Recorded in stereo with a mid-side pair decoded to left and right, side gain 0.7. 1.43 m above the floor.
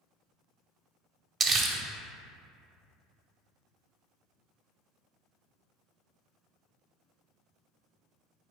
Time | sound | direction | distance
1.4 | crumpling | 35° right | 0.6 m